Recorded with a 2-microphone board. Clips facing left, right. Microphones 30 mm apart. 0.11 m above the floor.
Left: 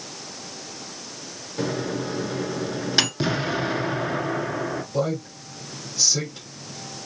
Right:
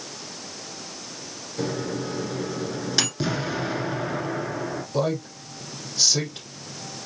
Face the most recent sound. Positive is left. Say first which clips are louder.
# right 2 dB
turn(degrees=-40)  # may be behind; listen again after turning